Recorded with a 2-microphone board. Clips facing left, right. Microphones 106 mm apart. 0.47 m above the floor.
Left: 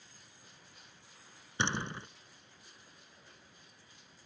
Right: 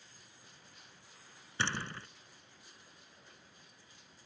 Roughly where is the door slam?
Centre.